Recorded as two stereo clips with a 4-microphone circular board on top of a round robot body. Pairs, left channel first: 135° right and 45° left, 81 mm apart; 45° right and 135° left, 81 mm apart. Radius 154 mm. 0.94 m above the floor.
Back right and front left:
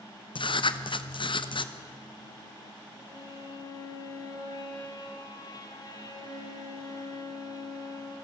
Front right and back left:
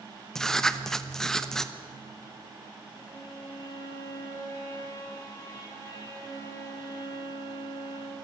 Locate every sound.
0.3 s writing: 130° right, 1.3 m
2.9 s a violin: 90° right, 4 m